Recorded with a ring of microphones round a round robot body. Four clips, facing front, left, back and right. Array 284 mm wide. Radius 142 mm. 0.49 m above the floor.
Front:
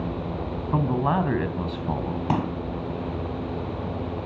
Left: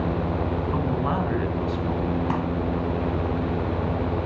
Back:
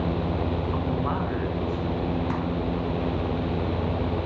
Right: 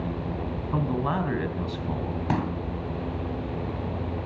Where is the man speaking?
10° right, 4 m.